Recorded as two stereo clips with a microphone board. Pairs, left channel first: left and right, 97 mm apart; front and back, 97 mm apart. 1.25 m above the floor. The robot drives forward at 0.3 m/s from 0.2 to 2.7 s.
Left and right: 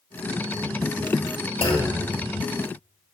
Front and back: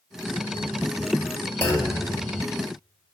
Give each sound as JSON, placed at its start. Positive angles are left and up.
{"t": 1.6, "sound": "a clunk", "azimuth_deg": 70, "distance_m": 1.9}